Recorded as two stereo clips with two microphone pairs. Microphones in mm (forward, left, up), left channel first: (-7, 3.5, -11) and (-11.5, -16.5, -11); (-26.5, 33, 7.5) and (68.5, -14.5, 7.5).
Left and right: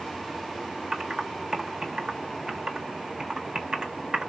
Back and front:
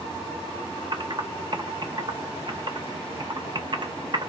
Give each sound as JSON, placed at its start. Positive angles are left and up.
{"t": 0.9, "sound": "typing on a keyboard", "azimuth_deg": -60, "distance_m": 1.0}